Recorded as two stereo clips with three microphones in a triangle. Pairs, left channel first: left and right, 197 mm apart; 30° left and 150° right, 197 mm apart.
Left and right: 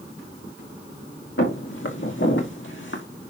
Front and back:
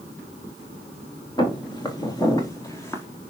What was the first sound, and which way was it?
Footsteps, 95° left.